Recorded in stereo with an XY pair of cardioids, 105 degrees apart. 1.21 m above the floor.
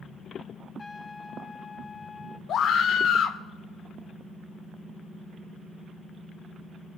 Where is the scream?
65° left, 1.7 m.